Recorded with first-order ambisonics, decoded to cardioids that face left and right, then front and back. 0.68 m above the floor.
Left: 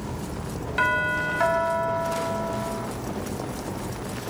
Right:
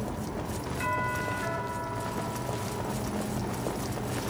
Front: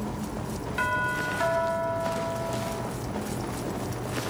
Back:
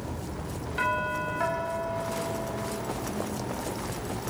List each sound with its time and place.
0.8 s a doorbell: 85° left, 4.5 m